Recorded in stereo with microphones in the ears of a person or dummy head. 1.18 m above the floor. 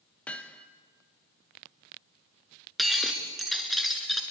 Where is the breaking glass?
Centre (ahead or behind), 2.5 m.